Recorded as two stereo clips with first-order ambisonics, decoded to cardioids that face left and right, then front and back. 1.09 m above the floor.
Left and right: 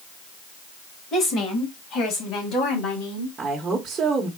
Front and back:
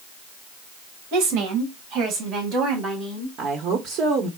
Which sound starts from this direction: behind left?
A woman speaking, at 1.1 s.